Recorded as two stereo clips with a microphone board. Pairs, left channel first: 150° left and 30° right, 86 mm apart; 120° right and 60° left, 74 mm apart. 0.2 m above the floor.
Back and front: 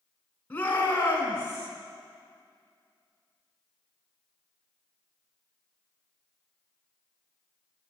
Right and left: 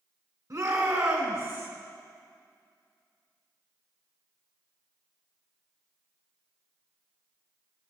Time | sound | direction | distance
0.5 | a shout | 85° left | 2 m